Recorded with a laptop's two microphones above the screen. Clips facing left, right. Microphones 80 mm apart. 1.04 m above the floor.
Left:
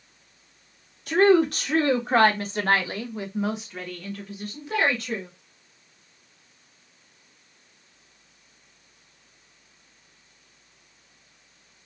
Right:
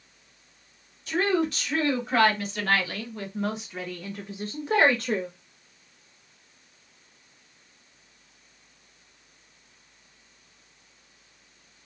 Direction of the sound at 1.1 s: 60° left (ahead or behind).